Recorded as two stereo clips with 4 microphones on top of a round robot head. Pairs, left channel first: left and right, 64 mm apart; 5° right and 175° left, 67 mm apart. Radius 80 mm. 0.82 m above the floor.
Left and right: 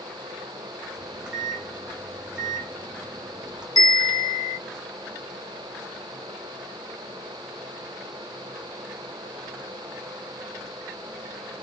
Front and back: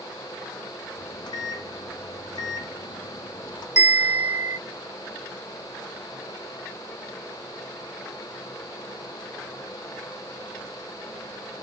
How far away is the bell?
About 1.3 m.